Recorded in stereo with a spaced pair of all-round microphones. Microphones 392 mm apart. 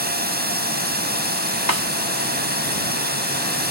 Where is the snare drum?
60° right (ahead or behind).